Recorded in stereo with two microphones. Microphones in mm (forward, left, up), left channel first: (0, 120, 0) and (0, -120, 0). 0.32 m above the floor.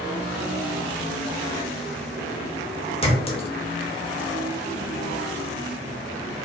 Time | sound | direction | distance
3.0 | a clink | 25° left (ahead or behind) | 0.7 m